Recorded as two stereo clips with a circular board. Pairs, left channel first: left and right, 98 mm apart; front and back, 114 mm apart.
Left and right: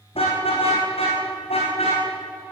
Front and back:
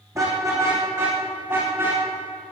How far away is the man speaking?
No man speaking in this recording.